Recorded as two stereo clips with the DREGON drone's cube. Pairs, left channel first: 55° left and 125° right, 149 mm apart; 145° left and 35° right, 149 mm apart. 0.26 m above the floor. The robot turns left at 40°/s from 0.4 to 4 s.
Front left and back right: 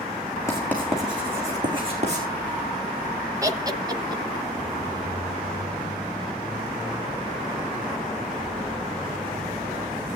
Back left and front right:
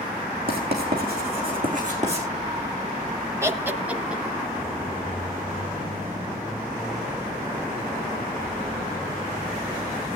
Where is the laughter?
85° right, 1.1 m; by 4.2 s 110° right, 1.1 m.